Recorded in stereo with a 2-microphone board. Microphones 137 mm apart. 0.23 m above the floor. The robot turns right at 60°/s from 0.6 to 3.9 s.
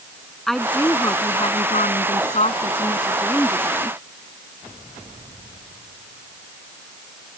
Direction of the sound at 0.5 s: 5° left.